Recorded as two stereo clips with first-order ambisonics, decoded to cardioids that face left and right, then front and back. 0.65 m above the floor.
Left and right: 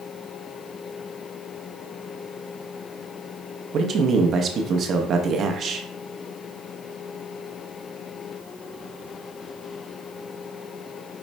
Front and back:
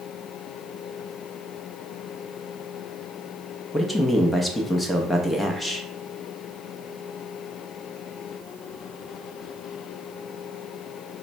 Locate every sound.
3.7 s a man speaking: 75° right, 0.5 m